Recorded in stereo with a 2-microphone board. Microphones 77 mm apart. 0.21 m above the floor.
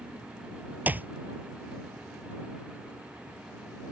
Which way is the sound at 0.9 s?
25° right (ahead or behind).